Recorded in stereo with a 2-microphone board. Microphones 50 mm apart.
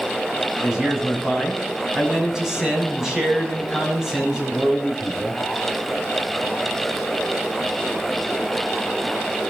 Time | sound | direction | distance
0.6 | a man speaking | 10° right (ahead or behind) | 6 m